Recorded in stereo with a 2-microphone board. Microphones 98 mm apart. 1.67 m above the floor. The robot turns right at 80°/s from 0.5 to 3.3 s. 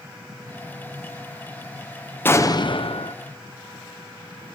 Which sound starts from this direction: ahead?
An explosion, at 2.2 s.